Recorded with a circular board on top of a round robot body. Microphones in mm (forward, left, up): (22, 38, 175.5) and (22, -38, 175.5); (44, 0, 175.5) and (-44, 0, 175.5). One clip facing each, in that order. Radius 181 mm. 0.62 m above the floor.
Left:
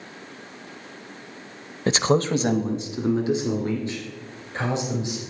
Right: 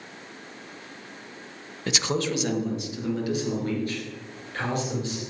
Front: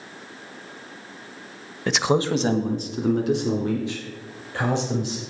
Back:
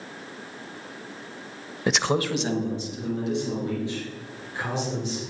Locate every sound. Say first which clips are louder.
1.9 s a man speaking: left 7 dB, front 3 dB; 105° left, 0.9 m; by 5.2 s 20° left, 5 m